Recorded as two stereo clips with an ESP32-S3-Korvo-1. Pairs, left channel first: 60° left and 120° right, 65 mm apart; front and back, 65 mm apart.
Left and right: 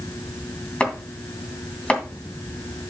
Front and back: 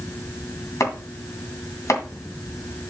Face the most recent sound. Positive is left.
turn(degrees=-5)